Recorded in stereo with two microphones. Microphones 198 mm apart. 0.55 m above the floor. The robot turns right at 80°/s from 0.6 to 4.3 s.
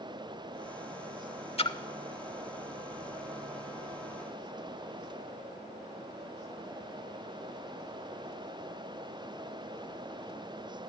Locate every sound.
1.6 s a splash: 30° left (ahead or behind), 0.9 m; by 1.8 s 15° left (ahead or behind), 0.9 m